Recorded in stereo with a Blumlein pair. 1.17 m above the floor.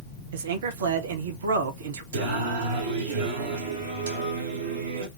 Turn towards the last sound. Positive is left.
turn(degrees=-65)